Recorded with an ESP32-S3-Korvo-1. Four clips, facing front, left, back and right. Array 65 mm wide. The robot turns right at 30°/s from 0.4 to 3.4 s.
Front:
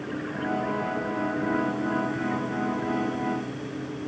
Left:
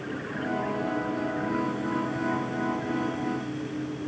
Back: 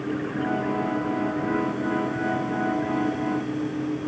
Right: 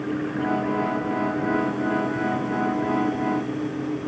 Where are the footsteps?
I don't hear footsteps.